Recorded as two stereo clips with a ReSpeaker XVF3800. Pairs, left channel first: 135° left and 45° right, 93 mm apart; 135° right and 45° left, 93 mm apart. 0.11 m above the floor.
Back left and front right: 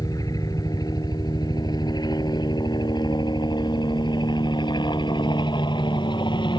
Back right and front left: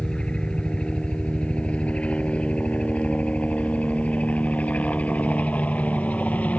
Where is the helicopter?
150° left; by 6.6 s 155° left.